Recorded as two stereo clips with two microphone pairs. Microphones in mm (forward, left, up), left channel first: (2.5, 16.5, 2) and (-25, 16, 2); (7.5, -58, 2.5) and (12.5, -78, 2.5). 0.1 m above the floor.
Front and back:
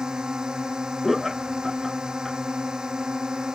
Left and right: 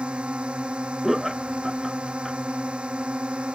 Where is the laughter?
115° right.